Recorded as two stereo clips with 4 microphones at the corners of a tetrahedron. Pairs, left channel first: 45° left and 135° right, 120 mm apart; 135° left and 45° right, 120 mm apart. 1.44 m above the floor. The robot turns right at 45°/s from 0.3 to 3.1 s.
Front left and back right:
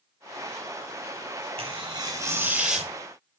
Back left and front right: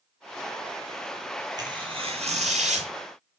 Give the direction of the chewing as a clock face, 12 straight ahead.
I don't hear chewing.